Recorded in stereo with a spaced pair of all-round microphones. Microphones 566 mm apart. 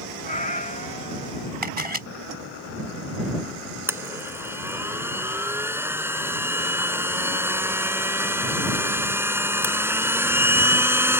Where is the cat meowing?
15° left (ahead or behind).